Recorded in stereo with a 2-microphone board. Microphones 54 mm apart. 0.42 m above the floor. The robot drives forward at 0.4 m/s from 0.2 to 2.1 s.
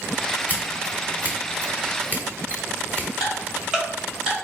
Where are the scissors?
30° right (ahead or behind), 1.4 m; by 3.1 s 40° right (ahead or behind), 1.2 m.